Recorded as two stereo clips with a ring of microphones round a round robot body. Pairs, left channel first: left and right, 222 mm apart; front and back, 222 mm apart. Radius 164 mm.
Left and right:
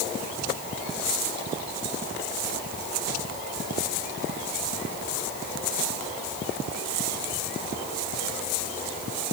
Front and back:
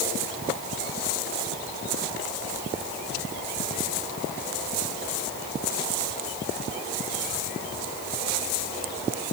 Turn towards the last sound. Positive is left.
No sound to turn to.